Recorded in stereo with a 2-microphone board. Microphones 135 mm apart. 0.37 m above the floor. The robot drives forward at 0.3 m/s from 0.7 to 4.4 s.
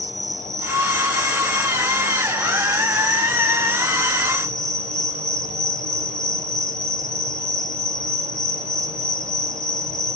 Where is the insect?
20° right (ahead or behind), 1.6 m; by 10.2 s 55° right (ahead or behind), 0.7 m.